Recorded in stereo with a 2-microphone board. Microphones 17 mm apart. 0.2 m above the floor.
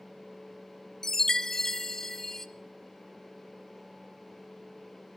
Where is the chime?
25° left (ahead or behind), 0.6 m.